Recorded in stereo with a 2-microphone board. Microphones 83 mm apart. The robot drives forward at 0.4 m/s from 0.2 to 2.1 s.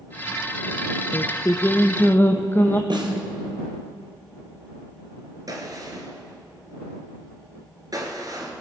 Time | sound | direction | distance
1.1 | singing | 40° left (ahead or behind) | 0.6 m
2.9 | a snare drum | 70° right (ahead or behind) | 2 m
5.5 | a gunshot | 50° right (ahead or behind) | 1.9 m